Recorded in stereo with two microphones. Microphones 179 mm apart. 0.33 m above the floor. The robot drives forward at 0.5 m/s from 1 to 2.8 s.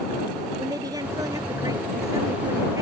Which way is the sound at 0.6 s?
20° right (ahead or behind).